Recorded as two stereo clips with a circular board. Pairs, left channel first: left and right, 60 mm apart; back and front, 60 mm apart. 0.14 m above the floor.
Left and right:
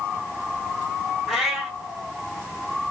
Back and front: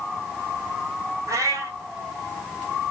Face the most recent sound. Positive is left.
turn(degrees=-5)